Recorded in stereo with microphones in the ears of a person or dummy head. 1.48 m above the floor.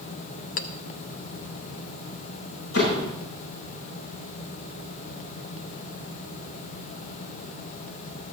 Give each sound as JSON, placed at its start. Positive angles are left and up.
{"t": 0.6, "sound": "a clink", "side_deg": 50, "distance_m": 0.5}
{"t": 2.7, "sound": "a door slam", "side_deg": 75, "distance_m": 8.0}